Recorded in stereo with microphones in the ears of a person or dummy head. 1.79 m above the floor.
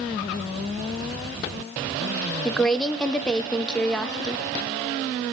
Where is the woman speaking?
5° left (ahead or behind), 0.5 m.